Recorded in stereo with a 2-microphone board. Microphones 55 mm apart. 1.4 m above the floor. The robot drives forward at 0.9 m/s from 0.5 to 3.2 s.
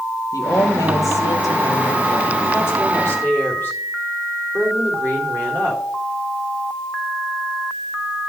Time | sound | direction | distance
0.3 | a woman speaking | 80° left | 2.5 m